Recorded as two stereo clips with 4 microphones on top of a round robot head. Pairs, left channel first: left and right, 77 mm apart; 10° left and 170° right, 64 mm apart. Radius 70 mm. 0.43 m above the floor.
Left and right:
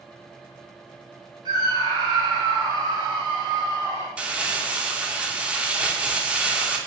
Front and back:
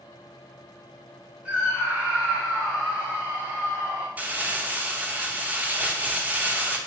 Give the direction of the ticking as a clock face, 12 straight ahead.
No ticking in this recording.